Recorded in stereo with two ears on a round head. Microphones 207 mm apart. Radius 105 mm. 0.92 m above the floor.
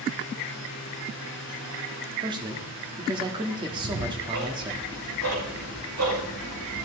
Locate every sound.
2.2 s a man speaking: 20° right (ahead or behind), 1.4 m
3.7 s ticking: 60° right (ahead or behind), 6 m